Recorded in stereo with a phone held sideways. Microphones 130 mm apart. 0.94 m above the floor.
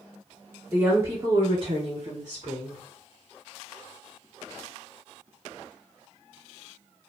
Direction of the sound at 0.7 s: 10° right (ahead or behind).